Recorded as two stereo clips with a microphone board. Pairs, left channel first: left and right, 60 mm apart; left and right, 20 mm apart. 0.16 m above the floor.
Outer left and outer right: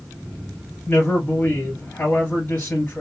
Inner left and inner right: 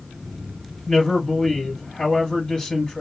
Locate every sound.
0.9 s a man speaking: 35° left (ahead or behind), 2.5 m